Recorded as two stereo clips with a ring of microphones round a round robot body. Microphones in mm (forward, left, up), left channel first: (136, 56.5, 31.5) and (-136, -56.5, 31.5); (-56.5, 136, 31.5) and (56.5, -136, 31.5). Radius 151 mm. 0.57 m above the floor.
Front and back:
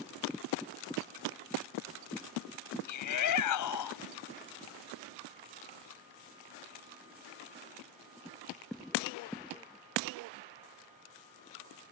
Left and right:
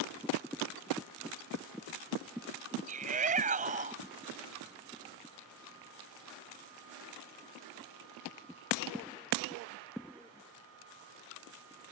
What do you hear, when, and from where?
2.9 s a shout: 5° right